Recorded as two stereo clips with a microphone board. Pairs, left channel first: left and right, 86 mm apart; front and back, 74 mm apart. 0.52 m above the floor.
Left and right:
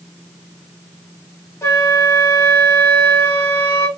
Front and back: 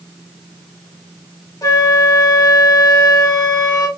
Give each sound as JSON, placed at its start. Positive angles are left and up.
{"t": 1.6, "sound": "a flute", "azimuth_deg": 30, "distance_m": 1.0}